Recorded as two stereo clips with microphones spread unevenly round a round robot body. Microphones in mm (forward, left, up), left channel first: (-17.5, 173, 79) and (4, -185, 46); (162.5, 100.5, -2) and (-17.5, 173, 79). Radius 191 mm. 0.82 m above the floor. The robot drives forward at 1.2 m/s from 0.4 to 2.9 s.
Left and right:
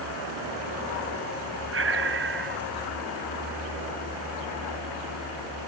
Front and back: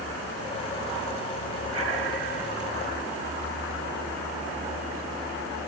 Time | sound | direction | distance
1.7 | breathing | 145° right | ?